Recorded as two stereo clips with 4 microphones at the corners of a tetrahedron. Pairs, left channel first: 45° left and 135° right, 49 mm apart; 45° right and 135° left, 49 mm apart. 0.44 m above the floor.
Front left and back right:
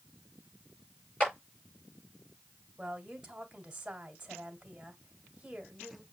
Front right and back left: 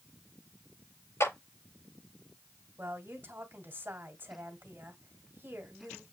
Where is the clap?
15° right, 5.5 m.